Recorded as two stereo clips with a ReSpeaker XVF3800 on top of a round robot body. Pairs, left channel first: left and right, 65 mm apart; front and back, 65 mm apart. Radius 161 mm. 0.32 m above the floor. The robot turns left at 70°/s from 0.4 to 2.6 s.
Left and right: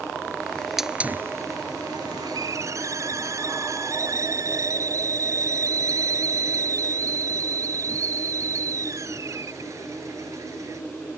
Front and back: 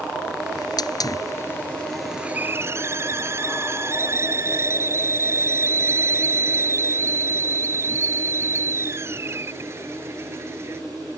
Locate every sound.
0.6 s a hiss: 15° left; by 10.8 s 130° right